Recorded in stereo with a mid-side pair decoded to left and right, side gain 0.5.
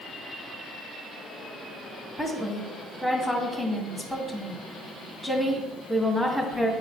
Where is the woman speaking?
5° right, 2 m.